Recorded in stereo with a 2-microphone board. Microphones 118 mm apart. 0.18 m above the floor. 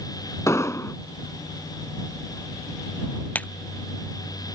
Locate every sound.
0.5 s an explosion: 25° left (ahead or behind)
3.4 s a splash: 10° left (ahead or behind)